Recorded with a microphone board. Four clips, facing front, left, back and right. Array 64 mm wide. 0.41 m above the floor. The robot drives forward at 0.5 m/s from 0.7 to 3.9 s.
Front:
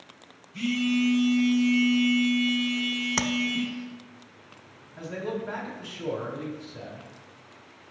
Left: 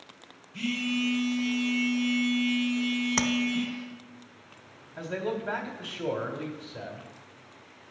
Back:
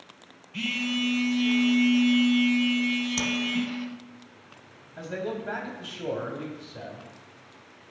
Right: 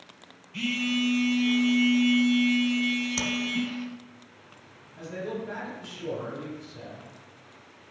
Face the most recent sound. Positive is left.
turn(degrees=115)